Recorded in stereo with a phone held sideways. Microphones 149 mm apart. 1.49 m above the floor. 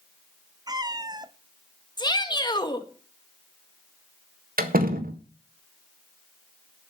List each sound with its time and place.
0.7 s a cat meowing: 25° right (ahead or behind), 0.7 m
2.0 s a shout: 30° left (ahead or behind), 1.9 m
4.6 s a door slam: 75° right (ahead or behind), 1.5 m